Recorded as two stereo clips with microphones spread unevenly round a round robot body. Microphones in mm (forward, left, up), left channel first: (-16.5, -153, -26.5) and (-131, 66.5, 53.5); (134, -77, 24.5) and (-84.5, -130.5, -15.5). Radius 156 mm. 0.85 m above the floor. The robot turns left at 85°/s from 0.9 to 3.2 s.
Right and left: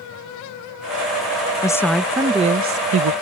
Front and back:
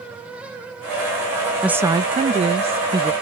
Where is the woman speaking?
95° right; by 3.1 s 135° left.